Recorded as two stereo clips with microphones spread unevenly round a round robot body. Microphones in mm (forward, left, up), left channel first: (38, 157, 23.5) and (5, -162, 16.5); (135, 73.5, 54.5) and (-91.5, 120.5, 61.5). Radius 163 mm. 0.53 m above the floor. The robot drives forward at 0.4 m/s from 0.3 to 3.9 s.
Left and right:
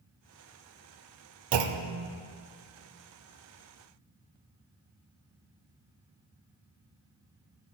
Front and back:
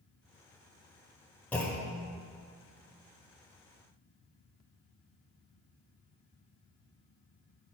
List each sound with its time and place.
1.5 s a clunk: 95° right, 0.6 m; by 2.1 s 115° right, 0.7 m